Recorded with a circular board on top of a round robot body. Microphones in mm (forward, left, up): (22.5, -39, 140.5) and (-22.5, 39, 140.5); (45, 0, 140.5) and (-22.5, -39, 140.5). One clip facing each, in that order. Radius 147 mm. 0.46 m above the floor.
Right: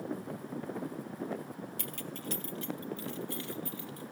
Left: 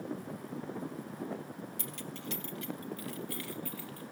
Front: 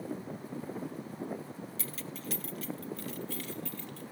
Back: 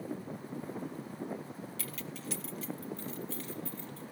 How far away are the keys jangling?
About 1.1 m.